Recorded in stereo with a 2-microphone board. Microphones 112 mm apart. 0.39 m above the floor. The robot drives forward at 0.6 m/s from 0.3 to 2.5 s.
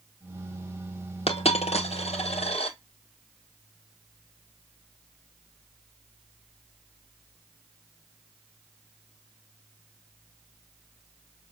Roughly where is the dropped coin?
Left.